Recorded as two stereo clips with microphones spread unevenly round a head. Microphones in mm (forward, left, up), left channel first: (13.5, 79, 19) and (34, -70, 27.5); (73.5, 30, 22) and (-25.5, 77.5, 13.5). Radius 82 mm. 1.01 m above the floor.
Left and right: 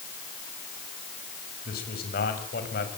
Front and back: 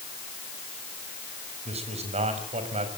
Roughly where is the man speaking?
Behind left.